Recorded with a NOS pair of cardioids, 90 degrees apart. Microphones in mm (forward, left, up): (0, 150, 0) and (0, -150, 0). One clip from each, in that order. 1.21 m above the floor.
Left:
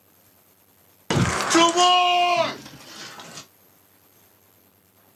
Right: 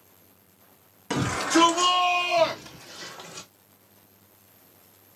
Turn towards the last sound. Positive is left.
turn(degrees=30)